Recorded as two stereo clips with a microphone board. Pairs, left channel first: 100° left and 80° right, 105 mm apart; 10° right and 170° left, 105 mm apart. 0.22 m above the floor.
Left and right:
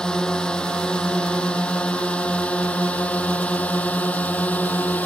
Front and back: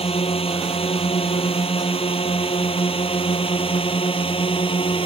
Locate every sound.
0.0 s a drone: 20° left; by 5.1 s 25° left